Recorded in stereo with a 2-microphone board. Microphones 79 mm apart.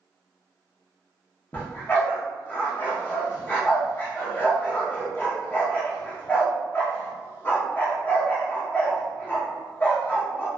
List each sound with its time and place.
1.5 s a dog barking: 25° left (ahead or behind), 0.8 m